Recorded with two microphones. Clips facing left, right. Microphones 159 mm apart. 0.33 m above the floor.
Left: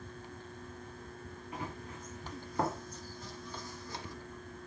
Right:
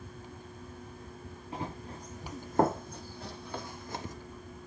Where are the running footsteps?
30° right (ahead or behind), 1.5 m; by 4.2 s 45° right (ahead or behind), 1.0 m.